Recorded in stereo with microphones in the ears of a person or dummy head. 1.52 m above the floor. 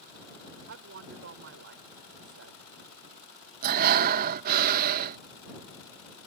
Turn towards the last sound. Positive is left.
turn(degrees=-50)  # may be behind; listen again after turning